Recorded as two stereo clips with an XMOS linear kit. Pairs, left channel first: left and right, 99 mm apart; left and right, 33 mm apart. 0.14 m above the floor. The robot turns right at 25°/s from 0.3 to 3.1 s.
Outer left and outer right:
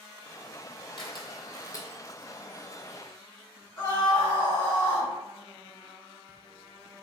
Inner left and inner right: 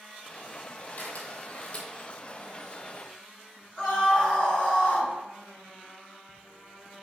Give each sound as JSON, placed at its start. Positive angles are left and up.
{"t": 1.0, "sound": "a camera shutter", "side_deg": 50, "distance_m": 0.9}
{"t": 3.8, "sound": "a scream", "side_deg": 25, "distance_m": 1.7}